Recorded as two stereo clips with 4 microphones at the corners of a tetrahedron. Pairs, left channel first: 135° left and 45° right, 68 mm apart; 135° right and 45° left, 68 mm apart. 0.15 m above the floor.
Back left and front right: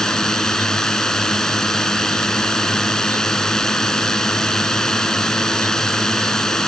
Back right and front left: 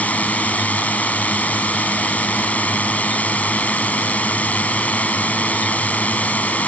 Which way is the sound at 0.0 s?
155° right.